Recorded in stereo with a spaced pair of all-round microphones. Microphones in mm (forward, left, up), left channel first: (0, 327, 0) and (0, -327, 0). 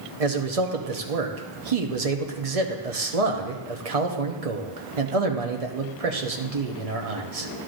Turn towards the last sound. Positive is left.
turn(degrees=-60)  # may be behind; listen again after turning